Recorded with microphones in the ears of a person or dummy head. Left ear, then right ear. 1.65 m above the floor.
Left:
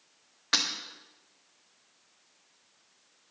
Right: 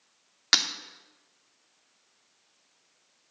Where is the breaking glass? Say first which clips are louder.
Right 4 dB; 70° right (ahead or behind), 2.5 m.